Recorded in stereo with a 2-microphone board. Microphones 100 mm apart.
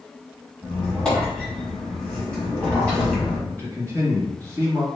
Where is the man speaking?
20° left (ahead or behind), 1.5 m.